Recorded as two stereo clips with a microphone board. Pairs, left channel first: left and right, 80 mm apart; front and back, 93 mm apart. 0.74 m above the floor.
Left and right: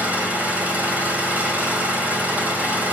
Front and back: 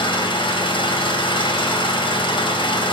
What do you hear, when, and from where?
0.0 s an engine running: 20° right, 3.5 m